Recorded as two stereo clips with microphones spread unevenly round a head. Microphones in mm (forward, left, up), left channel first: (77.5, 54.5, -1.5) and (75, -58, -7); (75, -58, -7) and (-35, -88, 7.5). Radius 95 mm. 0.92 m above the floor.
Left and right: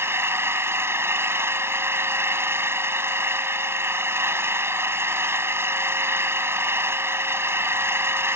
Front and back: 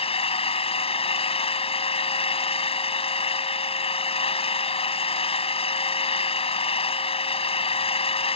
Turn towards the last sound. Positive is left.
turn(degrees=-20)